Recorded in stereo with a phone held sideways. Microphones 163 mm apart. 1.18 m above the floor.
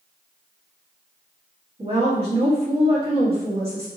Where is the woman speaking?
35° right (ahead or behind), 1.8 m.